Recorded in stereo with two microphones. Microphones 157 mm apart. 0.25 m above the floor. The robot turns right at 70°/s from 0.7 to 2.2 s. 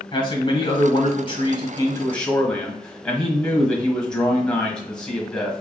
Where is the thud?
No thud in this recording.